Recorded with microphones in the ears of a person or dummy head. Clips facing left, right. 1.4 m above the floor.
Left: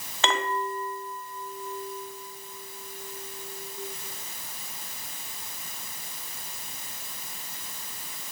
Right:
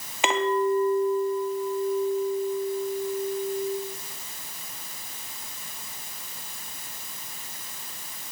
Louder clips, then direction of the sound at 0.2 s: Right 6 dB; 20° right (ahead or behind).